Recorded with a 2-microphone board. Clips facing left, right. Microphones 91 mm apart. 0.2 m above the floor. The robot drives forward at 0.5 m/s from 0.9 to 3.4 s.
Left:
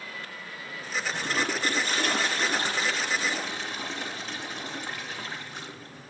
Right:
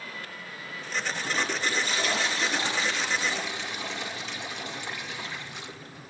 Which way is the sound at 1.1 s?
55° left (ahead or behind).